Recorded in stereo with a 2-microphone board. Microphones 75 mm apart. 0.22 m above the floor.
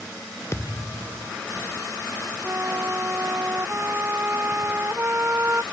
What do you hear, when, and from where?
0.5 s a thud: 35° left (ahead or behind)
2.4 s a flute: 30° right (ahead or behind)